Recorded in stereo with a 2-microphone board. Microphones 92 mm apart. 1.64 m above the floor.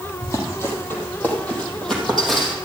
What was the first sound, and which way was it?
Running footsteps, 35° left (ahead or behind).